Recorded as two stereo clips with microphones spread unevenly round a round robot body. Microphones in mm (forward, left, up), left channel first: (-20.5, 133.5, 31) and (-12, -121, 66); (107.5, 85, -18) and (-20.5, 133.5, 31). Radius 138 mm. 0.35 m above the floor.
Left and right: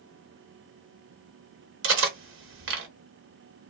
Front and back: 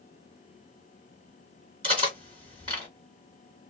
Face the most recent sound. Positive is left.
turn(degrees=-125)